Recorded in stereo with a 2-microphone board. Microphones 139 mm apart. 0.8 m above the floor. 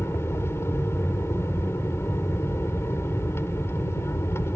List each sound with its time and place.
0.0 s an aircraft: 15° left (ahead or behind)